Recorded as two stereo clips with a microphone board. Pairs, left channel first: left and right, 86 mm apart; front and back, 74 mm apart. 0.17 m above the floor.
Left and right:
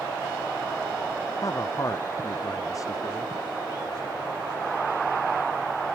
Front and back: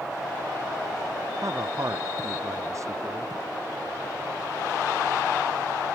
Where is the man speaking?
135° left.